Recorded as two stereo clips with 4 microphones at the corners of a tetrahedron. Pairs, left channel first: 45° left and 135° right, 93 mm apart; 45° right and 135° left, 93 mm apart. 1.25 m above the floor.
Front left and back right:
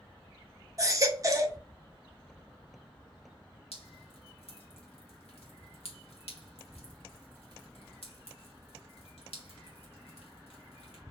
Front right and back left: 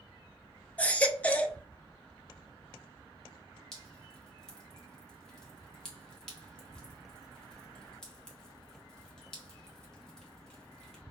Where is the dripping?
40° left, 1.3 m.